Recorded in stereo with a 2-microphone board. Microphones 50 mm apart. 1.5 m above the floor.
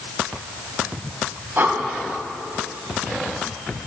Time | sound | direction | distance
1.6 | breathing | 40° right (ahead or behind) | 1.5 m